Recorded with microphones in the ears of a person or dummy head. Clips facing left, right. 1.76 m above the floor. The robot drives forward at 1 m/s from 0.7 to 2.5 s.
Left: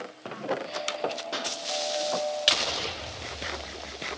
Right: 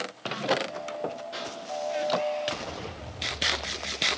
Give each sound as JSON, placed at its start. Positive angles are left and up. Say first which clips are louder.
{"t": 1.3, "sound": "a pop", "louder": "left 2 dB", "side_deg": 65, "distance_m": 0.9}